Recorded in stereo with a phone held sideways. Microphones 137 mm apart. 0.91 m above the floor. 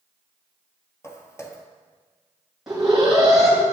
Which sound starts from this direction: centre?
An alarm, at 2.7 s.